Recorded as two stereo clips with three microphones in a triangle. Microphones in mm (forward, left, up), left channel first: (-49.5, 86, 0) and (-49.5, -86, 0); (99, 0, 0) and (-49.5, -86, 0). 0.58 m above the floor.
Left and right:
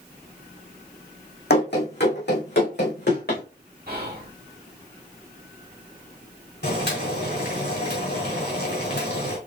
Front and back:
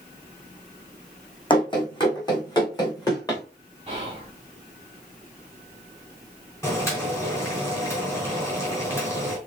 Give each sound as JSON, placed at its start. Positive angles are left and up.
{"t": 1.5, "sound": "running footsteps", "azimuth_deg": 90, "distance_m": 2.0}
{"t": 3.9, "sound": "whispering", "azimuth_deg": -100, "distance_m": 1.3}
{"t": 6.6, "sound": "boiling", "azimuth_deg": 105, "distance_m": 2.5}